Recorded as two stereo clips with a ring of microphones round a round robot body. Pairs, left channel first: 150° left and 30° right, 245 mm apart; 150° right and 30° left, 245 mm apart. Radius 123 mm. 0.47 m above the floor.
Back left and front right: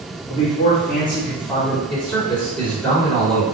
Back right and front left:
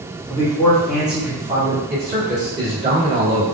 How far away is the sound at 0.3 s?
About 1.1 m.